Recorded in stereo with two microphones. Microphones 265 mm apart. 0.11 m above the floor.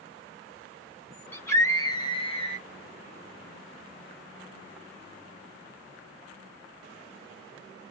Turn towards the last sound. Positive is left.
turn(degrees=25)  # may be behind; listen again after turning